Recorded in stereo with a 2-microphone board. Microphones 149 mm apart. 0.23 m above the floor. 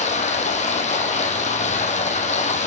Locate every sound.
0.0 s running water: 55° left (ahead or behind), 1.0 m